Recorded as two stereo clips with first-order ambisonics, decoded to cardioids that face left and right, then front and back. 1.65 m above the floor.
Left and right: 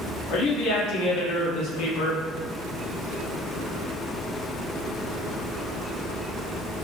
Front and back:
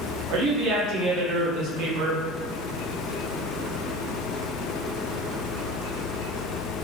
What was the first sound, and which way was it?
A woman speaking, 135° left.